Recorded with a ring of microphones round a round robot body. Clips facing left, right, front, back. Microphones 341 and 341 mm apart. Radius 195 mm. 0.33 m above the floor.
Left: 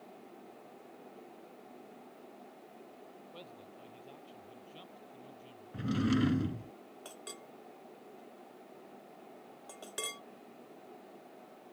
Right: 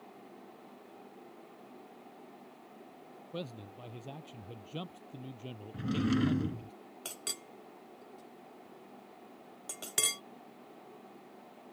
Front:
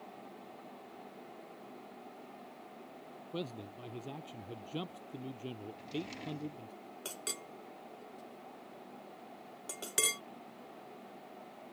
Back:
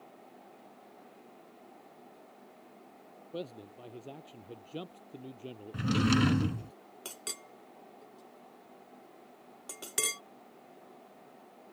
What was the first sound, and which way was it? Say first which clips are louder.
A man speaking: right 13 dB, even; 70° right.